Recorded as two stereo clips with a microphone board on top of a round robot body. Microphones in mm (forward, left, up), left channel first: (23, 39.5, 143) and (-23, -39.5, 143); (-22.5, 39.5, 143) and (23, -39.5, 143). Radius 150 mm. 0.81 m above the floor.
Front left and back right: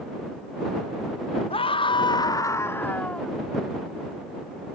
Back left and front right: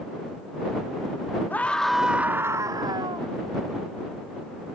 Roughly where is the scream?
Ahead left.